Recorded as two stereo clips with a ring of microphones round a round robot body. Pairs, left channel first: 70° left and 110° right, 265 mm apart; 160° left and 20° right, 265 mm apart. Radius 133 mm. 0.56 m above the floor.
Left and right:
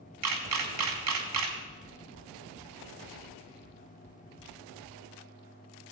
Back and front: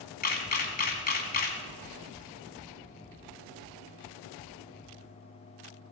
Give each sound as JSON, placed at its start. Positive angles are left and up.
{"t": 0.2, "sound": "a camera shutter", "azimuth_deg": -145, "distance_m": 1.7}